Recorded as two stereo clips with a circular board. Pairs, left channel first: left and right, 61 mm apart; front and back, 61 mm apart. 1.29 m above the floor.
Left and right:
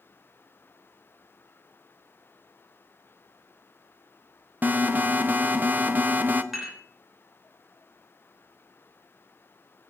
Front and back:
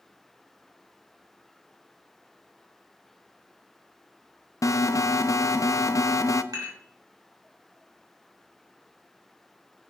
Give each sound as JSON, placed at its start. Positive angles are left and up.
{"t": 4.6, "sound": "an alarm", "azimuth_deg": -30, "distance_m": 0.6}
{"t": 6.5, "sound": "dishes clattering", "azimuth_deg": -175, "distance_m": 3.0}